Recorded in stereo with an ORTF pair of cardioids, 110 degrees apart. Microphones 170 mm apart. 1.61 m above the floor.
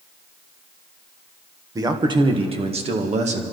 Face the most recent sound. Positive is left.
turn(degrees=-45)